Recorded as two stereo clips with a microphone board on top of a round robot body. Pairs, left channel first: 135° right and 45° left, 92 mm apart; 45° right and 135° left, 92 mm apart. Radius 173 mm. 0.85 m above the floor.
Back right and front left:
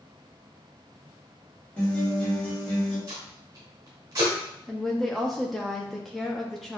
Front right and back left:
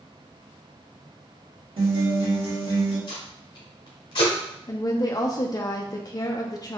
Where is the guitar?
150° left, 1.9 m.